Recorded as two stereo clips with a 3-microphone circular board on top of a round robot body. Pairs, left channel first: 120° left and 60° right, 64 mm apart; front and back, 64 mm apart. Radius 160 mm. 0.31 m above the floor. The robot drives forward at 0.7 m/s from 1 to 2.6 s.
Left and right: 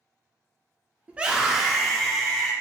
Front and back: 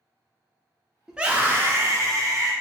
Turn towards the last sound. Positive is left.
turn(degrees=-160)